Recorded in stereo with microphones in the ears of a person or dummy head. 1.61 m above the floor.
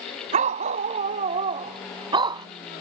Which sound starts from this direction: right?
A dog barking, at 0.3 s.